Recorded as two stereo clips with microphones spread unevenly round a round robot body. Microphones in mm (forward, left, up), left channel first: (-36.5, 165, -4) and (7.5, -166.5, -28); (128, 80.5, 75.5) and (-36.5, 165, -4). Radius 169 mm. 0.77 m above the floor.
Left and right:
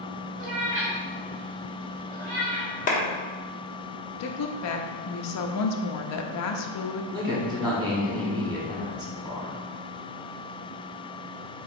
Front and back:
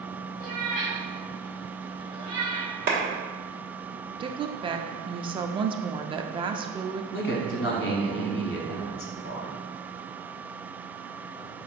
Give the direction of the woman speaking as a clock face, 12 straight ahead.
8 o'clock.